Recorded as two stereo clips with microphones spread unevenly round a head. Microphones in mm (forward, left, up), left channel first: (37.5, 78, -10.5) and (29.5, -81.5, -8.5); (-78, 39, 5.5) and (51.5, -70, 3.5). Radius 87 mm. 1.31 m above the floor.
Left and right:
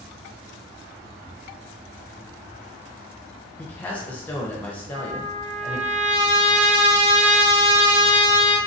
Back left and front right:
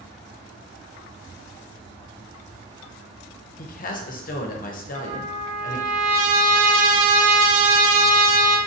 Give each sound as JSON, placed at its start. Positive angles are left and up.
{"t": 3.6, "sound": "a man speaking", "azimuth_deg": 165, "distance_m": 0.6}
{"t": 4.9, "sound": "a trumpet", "azimuth_deg": -45, "distance_m": 0.9}